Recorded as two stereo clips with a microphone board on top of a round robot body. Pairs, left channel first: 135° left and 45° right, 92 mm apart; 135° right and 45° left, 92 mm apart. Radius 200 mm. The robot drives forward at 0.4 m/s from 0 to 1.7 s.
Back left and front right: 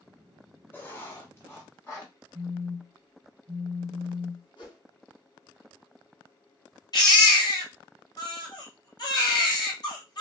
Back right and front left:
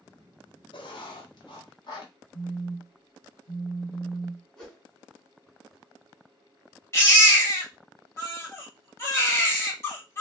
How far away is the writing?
About 0.7 m.